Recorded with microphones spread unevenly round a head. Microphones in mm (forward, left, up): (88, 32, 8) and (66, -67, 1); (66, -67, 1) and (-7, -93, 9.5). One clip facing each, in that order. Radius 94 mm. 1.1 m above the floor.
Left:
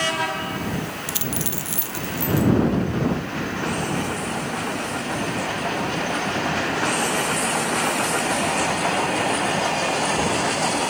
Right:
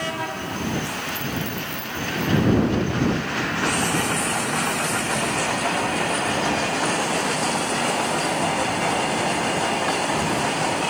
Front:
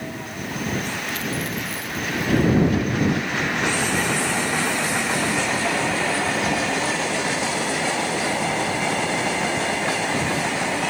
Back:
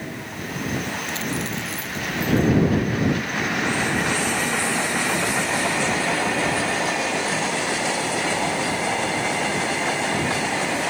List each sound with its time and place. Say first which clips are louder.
1.1 s a dropped coin: right 1 dB, even; 120° left